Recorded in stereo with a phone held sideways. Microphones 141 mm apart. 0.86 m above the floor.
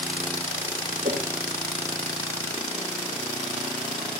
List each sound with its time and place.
1.0 s a whoosh: 80° right, 1.1 m